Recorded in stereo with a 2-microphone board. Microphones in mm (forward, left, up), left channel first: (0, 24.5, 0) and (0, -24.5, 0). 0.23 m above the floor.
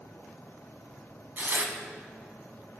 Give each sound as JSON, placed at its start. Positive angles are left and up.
{"t": 1.4, "sound": "tearing paper", "side_deg": -40, "distance_m": 0.8}